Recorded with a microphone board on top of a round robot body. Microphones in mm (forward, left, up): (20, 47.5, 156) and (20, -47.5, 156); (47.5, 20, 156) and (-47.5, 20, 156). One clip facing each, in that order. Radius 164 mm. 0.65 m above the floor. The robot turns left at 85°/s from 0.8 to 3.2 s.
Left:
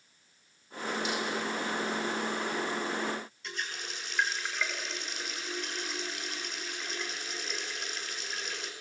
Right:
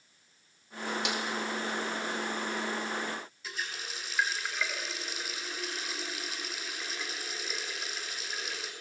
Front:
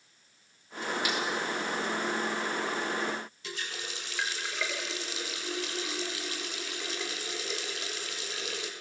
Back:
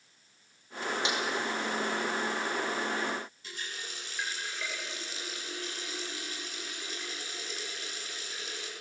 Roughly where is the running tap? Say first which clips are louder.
Even, front 3 dB; ahead.